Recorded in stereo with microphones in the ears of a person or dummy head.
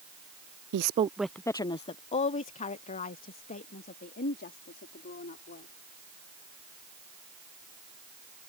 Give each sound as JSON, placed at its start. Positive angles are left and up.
{"t": 0.7, "sound": "a woman speaking", "side_deg": -60}